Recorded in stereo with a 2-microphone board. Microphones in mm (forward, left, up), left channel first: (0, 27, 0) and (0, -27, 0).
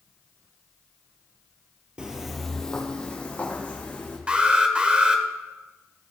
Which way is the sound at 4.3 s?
25° right (ahead or behind).